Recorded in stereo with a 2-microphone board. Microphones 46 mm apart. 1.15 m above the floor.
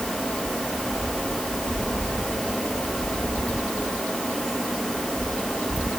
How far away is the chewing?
No chewing in this recording.